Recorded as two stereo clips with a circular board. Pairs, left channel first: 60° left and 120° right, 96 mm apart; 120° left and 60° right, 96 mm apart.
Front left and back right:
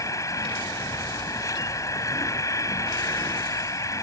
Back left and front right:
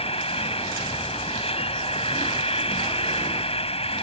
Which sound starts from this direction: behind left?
An insect, at 0.0 s.